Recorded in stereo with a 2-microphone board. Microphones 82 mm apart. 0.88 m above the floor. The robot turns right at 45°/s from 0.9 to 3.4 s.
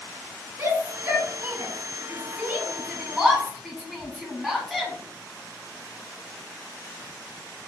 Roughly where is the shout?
Right.